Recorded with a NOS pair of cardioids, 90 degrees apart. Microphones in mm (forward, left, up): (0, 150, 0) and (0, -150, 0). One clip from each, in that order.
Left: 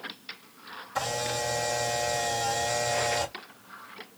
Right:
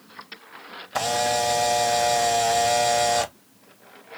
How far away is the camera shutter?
About 0.6 m.